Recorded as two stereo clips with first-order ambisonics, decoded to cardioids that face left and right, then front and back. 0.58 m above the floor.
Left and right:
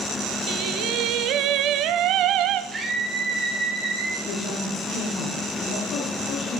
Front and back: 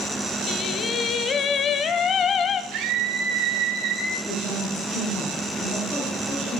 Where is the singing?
55° right, 0.6 m.